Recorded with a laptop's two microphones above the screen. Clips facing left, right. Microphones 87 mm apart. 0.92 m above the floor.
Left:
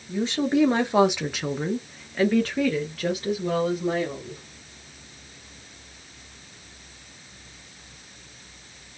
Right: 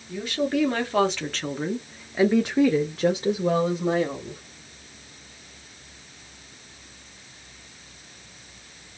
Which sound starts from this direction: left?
A woman speaking, at 0.1 s.